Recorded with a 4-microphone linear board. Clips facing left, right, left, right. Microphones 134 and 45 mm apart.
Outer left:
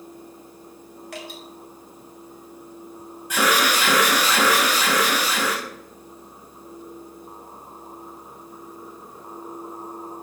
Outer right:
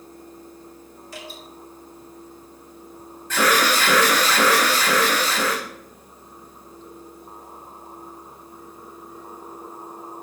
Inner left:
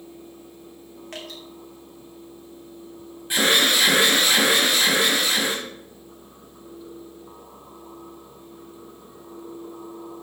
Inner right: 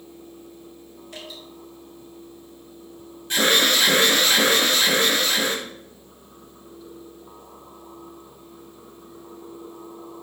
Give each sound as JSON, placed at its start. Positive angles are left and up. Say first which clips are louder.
{"t": 1.1, "sound": "dripping", "louder": "outer left 2 dB, inner left 2 dB", "side_deg": 70, "distance_m": 2.5}
{"t": 3.3, "sound": "an alarm", "louder": "outer right 1 dB, even", "side_deg": 15, "distance_m": 2.5}